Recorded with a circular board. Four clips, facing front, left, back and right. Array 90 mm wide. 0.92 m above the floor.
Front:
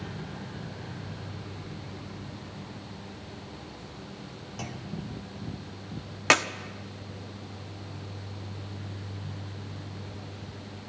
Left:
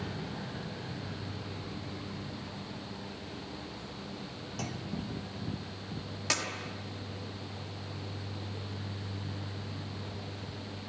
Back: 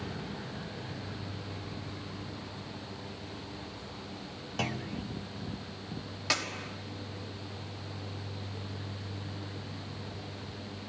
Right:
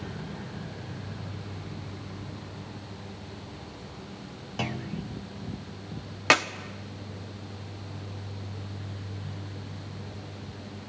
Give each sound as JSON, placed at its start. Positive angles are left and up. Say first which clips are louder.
{"t": 4.6, "sound": "a clunk", "louder": "right 6 dB, back 3 dB", "azimuth_deg": -130, "distance_m": 0.6}
{"t": 6.3, "sound": "a clap", "louder": "right 13 dB, front 11 dB", "azimuth_deg": -45, "distance_m": 1.2}